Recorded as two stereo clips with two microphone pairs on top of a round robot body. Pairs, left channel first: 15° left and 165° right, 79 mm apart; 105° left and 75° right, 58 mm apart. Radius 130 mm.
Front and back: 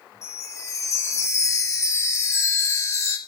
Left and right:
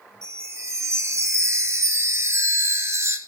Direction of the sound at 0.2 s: 35° right.